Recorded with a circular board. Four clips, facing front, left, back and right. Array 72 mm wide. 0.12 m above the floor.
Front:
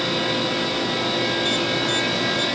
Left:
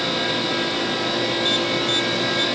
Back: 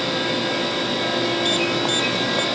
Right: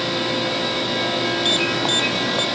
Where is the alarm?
115° right.